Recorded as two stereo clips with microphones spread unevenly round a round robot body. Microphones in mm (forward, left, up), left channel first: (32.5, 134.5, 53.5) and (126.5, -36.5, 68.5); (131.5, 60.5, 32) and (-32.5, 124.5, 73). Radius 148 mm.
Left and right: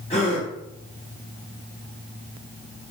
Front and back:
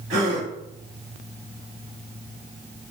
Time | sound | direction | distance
0.1 | a gasp | 175° left | 1.6 m